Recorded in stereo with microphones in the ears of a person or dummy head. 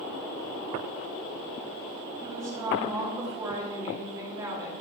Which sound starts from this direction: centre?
A woman speaking, at 2.2 s.